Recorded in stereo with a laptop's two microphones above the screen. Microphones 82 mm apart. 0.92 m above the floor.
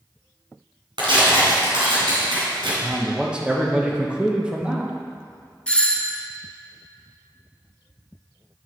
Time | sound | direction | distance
1.0 | tearing paper | 75° right (ahead or behind) | 3 m
2.8 | a man speaking | 15° right (ahead or behind) | 0.9 m
5.7 | a doorbell | 15° left (ahead or behind) | 0.8 m